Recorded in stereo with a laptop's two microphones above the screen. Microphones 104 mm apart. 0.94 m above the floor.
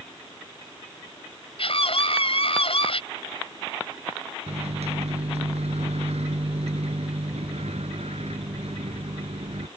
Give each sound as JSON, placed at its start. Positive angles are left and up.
{"t": 1.6, "sound": "a scream", "side_deg": 65}
{"t": 4.5, "sound": "a microwave", "side_deg": -85}